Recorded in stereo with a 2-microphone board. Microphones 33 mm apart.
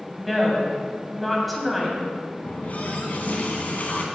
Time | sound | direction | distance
0.2 | a woman speaking | centre (ahead or behind) | 1.9 m
2.4 | a running tap | 55° left (ahead or behind) | 1.4 m